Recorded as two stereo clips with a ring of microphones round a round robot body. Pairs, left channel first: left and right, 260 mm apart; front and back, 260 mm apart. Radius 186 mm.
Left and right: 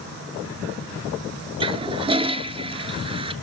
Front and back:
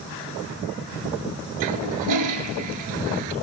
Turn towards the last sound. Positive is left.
turn(degrees=-160)